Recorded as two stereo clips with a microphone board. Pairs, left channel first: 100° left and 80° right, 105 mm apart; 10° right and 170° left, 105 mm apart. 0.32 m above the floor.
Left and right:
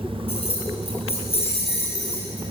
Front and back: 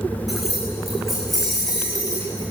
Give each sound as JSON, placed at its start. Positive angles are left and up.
{"t": 0.3, "sound": "keys jangling", "azimuth_deg": 80, "distance_m": 3.5}